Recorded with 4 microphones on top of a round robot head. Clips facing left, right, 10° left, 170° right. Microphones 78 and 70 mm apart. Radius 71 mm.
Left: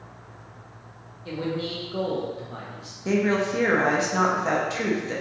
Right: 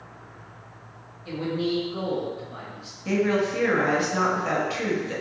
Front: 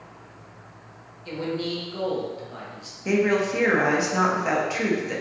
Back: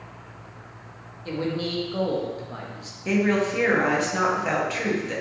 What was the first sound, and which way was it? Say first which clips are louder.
A man speaking: right 2 dB, back 1 dB; 140° left.